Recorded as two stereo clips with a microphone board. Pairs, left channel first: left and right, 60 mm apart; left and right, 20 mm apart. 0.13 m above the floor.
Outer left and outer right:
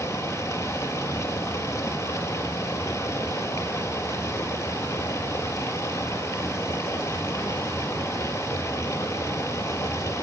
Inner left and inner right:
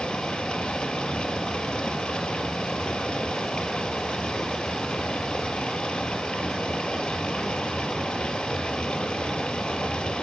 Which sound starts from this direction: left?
Running water, at 0.0 s.